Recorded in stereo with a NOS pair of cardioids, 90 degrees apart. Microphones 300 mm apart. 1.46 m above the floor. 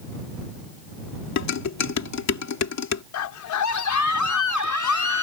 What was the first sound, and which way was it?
Dishes clattering, 65° left.